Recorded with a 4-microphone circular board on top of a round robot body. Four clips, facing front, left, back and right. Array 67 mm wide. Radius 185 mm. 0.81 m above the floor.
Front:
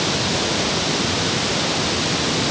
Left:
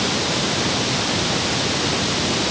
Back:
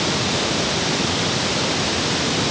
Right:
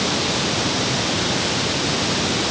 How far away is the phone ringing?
No phone ringing in this recording.